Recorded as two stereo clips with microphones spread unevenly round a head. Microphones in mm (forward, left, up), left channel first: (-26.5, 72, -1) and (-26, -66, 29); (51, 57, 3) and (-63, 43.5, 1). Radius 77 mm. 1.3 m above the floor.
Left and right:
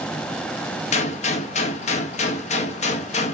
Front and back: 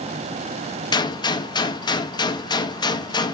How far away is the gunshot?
About 0.6 m.